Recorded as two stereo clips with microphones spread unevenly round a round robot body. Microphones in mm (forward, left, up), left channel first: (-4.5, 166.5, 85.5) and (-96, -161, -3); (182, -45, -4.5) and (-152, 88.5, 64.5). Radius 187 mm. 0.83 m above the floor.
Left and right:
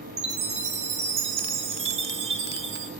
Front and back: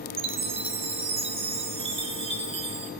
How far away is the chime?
About 0.7 m.